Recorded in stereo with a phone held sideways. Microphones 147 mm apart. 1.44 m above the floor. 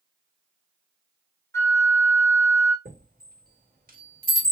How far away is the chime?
About 2.5 m.